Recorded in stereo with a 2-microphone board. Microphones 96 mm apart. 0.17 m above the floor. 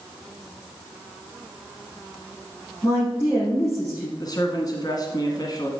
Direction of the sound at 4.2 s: 45° left (ahead or behind).